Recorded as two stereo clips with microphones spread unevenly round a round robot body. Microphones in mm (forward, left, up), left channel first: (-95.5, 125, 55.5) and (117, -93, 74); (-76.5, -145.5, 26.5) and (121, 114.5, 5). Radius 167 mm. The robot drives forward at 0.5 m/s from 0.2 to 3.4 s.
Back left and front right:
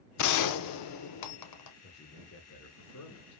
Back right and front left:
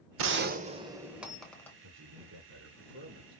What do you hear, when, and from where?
0.2 s a gunshot: 105° left, 0.6 m; by 1.7 s 150° left, 1.1 m
1.8 s a man speaking: 80° left, 1.4 m; by 3.4 s 115° left, 1.5 m